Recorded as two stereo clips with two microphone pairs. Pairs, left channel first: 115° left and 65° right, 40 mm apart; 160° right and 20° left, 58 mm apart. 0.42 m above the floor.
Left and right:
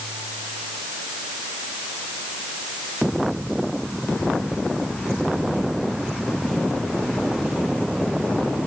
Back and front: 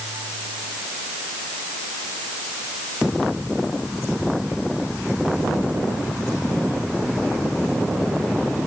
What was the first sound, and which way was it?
Only background noise.